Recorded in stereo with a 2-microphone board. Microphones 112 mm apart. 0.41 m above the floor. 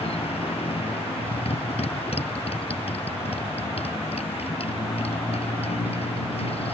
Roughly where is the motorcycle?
Left.